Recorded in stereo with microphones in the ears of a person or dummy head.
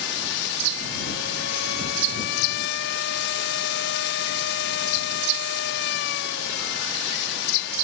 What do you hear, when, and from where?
0.0 s a machine running: 60° left (ahead or behind)